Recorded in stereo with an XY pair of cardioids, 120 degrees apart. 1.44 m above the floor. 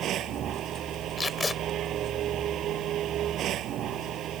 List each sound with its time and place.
0.0 s a machine running: 60° right
1.2 s tape being pulled: 25° left